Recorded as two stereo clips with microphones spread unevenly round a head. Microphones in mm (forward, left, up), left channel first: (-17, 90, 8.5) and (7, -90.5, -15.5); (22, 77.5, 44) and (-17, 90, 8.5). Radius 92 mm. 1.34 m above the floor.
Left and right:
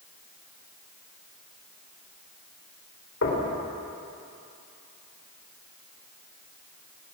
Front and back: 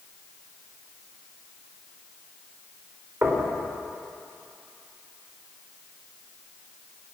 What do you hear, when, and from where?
3.2 s knocking: 115° left, 5 m